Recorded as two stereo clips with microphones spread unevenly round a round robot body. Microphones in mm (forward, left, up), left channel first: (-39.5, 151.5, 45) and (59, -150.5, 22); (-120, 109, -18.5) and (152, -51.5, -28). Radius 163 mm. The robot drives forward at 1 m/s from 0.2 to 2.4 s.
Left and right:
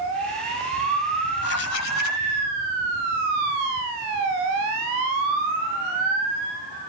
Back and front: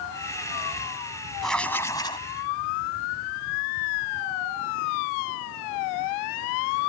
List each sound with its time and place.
1.4 s writing: 60° left; by 2.3 s 75° left